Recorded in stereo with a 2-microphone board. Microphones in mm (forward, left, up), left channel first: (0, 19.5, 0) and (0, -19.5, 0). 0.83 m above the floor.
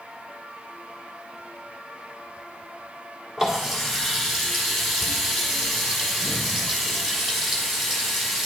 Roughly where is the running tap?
Centre.